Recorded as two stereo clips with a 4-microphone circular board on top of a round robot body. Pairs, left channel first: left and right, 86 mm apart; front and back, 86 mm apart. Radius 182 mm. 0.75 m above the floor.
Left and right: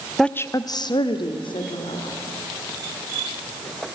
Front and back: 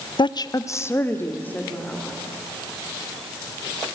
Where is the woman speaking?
5° left, 0.7 m; by 2.1 s 75° left, 3 m.